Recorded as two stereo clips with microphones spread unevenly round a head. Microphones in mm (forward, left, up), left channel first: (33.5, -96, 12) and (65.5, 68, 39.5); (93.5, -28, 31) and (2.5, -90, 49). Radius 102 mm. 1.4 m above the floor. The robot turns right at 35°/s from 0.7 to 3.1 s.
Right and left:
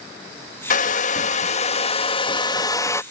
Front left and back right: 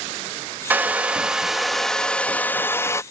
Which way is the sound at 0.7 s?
105° right.